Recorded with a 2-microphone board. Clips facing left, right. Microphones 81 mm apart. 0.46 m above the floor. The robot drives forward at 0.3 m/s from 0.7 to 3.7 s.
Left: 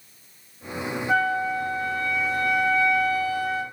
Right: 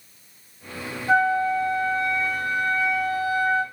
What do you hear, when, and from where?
1.1 s a flute: 40° right (ahead or behind), 2.5 m; by 3.6 s 50° right (ahead or behind), 1.8 m